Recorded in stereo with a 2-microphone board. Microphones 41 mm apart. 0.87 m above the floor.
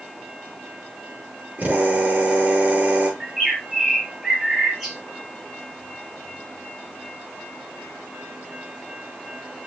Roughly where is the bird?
Centre.